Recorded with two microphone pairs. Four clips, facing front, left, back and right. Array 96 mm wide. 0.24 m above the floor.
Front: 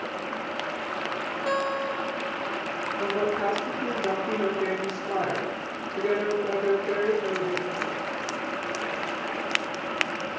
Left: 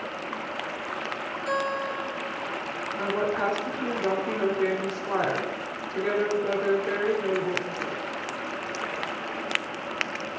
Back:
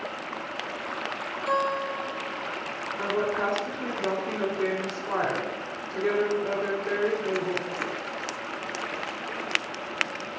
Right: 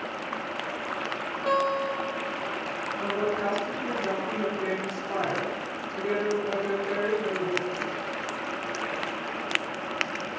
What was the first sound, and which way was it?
A guitar, 45° right.